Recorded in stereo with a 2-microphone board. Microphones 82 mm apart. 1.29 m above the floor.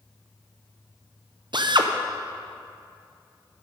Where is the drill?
65° right (ahead or behind), 0.6 m.